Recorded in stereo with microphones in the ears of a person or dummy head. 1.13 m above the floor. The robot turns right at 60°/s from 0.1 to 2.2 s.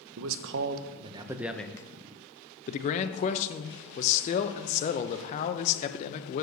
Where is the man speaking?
85° right, 0.5 m; by 6.4 s 40° left, 0.5 m.